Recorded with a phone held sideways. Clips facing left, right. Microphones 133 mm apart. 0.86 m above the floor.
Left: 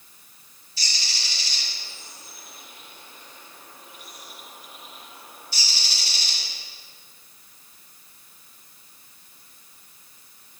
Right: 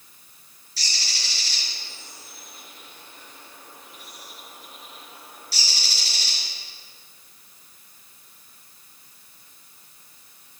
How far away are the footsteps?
No footsteps in this recording.